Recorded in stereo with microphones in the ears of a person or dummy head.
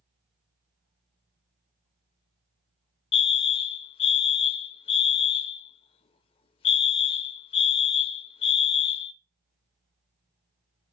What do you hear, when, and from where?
3.1 s a fire alarm: 25° left (ahead or behind), 0.7 m